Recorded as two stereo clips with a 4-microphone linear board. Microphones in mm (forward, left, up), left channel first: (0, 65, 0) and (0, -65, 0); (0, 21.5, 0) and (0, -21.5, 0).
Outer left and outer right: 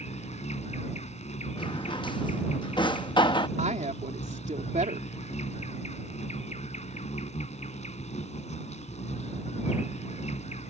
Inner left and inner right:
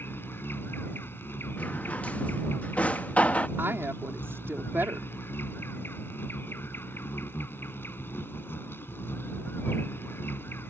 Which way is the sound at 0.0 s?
65° left (ahead or behind).